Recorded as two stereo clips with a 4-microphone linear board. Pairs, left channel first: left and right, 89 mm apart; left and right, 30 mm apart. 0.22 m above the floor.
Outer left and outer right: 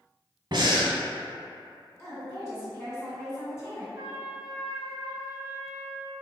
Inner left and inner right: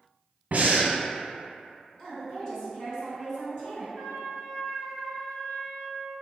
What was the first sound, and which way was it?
Breathing, 60° right (ahead or behind).